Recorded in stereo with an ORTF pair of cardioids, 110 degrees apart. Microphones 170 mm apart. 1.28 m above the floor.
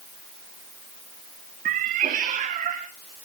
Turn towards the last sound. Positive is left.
turn(degrees=-45)